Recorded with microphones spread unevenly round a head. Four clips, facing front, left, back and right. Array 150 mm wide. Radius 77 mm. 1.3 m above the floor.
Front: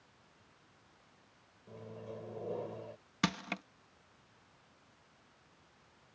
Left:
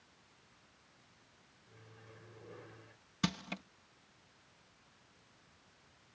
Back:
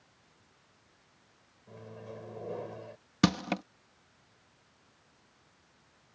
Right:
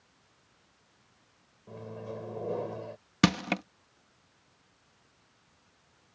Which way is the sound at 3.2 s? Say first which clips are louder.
Right 12 dB, back 8 dB; 125° right.